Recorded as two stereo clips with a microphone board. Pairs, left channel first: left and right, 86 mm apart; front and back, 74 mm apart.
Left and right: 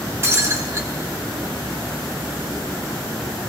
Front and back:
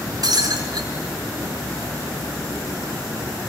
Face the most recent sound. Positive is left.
turn(degrees=-150)